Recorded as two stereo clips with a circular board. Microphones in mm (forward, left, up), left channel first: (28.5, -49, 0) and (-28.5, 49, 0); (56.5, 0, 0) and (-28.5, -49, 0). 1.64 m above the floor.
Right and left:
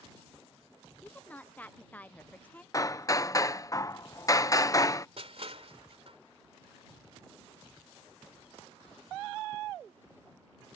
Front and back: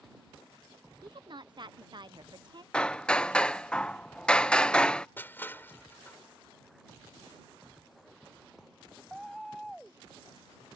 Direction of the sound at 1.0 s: 130° right.